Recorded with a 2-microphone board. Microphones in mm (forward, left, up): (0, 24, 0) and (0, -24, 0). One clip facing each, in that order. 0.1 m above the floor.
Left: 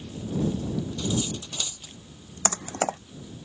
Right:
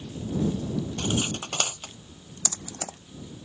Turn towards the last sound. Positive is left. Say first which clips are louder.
# left 11 dB
turn(degrees=45)  # may be behind; listen again after turning